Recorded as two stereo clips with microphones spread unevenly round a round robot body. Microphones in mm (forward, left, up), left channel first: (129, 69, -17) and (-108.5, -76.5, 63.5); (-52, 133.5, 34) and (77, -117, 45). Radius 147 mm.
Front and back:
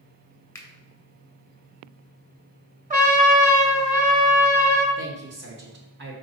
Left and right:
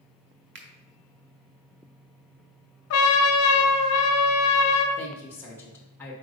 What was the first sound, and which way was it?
A finger snap, 30° right.